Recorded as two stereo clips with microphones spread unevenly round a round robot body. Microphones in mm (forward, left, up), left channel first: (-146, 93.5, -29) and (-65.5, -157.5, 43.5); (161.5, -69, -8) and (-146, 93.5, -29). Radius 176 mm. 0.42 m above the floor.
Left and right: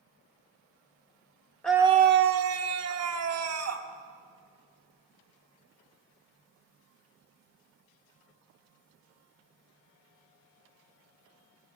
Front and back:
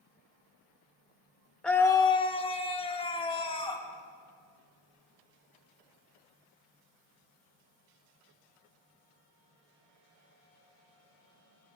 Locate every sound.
1.6 s a scream: 65° left, 0.9 m; by 3.9 s 105° right, 3.5 m